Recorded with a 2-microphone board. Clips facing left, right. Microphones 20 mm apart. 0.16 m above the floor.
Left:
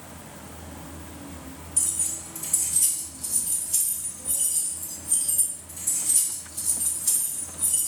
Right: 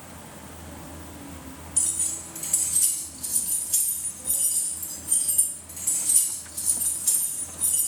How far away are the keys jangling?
About 2.0 m.